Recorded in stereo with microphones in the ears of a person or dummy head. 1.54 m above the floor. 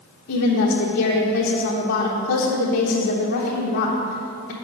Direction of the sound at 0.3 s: 50° left (ahead or behind).